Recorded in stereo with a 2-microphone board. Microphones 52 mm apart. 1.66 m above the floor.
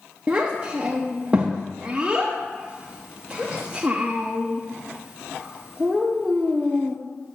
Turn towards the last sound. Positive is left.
turn(degrees=-20)  # may be behind; listen again after turning